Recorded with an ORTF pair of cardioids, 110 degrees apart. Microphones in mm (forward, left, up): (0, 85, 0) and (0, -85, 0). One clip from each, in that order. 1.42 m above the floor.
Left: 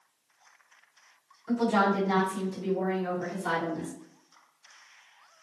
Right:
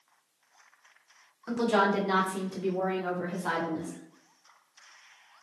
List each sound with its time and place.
1.5 s a woman speaking: 55° right, 1.4 m; by 3.9 s 10° left, 1.3 m